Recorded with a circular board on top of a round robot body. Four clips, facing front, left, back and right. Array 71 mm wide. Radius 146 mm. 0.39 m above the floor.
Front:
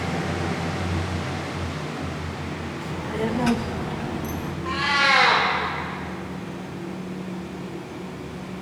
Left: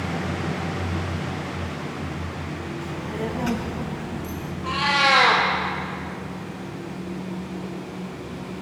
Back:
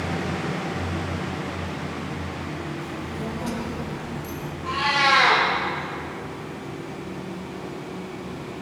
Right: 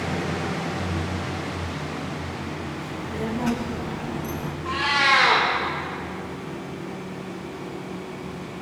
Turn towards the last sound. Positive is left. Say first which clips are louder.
# left 1 dB, back 1 dB
turn(degrees=90)